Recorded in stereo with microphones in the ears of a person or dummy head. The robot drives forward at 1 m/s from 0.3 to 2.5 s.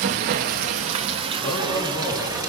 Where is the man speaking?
30° left (ahead or behind), 4 m; by 2.4 s 25° left (ahead or behind), 5 m.